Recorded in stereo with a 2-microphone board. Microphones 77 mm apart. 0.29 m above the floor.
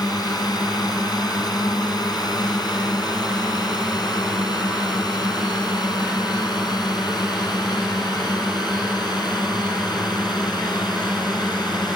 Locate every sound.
0.0 s a drone: 60° left (ahead or behind); by 12.0 s 65° left (ahead or behind)